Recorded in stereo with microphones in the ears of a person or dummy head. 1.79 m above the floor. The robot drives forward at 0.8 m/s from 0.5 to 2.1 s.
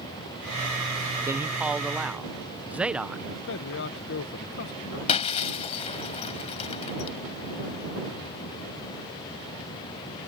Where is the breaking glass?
30° left (ahead or behind).